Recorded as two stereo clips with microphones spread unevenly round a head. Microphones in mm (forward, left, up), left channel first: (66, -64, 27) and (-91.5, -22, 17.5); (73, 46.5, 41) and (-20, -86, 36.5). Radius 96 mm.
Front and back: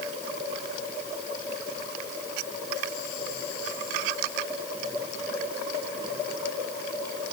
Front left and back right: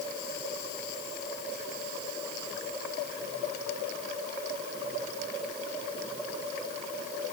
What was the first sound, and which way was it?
Only background noise.